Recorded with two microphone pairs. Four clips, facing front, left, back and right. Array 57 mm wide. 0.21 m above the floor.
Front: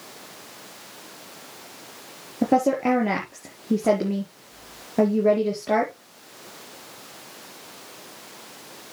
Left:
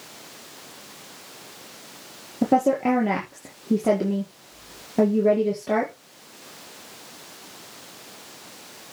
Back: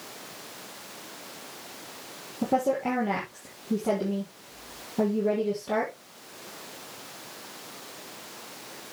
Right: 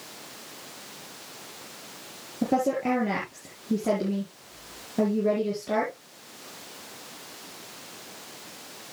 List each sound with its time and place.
2.4 s a woman speaking: 35° left, 4.5 m